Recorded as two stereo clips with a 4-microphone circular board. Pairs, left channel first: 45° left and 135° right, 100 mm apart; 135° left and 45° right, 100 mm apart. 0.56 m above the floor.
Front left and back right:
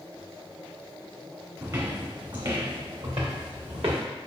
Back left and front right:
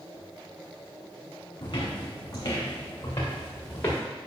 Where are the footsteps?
175° left, 2 m; by 4.0 s 155° right, 3.5 m.